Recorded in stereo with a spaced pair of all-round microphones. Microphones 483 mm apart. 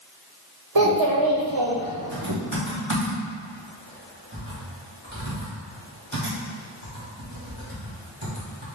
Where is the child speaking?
50° right (ahead or behind), 0.6 m.